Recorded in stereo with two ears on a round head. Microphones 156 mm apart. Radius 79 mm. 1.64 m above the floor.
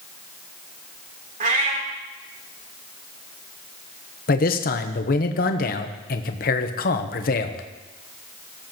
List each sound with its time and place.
1.4 s a cat meowing: 50° right (ahead or behind), 2.5 m
4.3 s a man speaking: 50° left (ahead or behind), 0.9 m